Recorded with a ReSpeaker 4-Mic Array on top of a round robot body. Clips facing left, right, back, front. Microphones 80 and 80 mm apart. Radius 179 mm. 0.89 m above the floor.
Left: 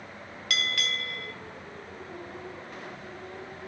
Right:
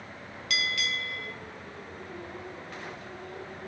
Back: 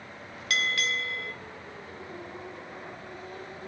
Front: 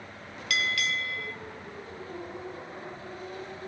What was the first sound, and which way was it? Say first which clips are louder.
A bell: even, even; 125° left.